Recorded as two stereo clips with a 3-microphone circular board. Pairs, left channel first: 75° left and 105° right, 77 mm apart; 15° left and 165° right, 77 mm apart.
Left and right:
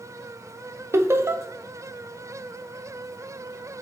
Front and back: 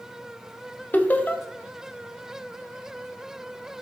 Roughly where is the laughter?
Ahead right.